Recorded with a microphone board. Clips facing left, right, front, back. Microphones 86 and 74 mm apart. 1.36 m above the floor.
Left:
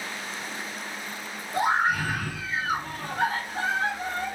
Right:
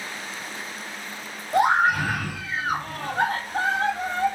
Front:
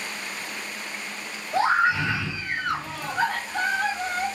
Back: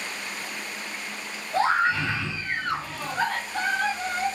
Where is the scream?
75° right, 1.3 m.